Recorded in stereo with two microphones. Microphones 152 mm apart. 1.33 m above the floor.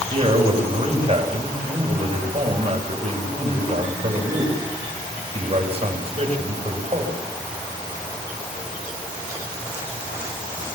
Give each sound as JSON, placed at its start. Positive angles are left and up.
{"t": 0.1, "sound": "a man speaking", "side_deg": -40, "distance_m": 7.0}